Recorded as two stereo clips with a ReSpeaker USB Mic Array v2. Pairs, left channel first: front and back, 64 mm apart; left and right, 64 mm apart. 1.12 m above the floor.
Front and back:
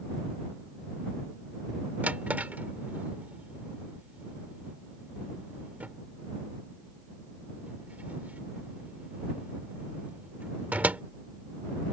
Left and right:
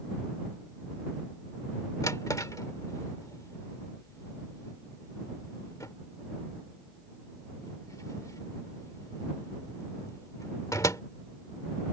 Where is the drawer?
115° left.